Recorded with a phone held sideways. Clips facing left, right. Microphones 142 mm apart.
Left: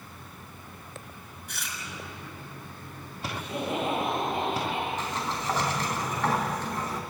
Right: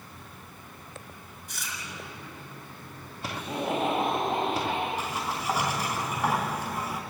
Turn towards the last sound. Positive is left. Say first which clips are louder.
# even
turn(degrees=-10)  # may be behind; listen again after turning